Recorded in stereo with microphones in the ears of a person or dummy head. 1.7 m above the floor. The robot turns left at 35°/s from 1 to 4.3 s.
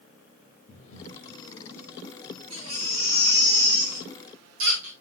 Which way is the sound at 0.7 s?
45° left (ahead or behind).